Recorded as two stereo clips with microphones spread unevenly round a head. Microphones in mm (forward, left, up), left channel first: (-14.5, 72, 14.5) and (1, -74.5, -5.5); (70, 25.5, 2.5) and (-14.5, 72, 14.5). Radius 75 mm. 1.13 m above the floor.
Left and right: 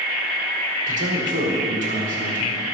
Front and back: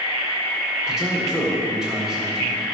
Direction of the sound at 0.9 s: 120° right.